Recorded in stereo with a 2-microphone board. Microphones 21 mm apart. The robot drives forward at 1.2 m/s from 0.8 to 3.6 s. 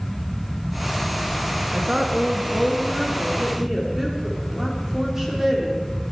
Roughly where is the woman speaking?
Right.